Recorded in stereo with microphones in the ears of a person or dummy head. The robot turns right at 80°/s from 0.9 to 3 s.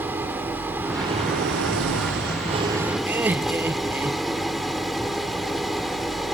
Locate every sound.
0.0 s an engine running: 170° right; by 6.3 s straight ahead
3.1 s laughter: 10° right (ahead or behind)